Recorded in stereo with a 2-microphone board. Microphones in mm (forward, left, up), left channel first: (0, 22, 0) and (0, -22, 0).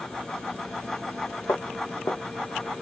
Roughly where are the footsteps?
Left.